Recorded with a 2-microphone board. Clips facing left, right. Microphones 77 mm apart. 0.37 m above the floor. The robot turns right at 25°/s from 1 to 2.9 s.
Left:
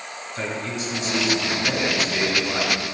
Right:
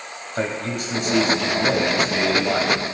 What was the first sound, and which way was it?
A man speaking, 110° right.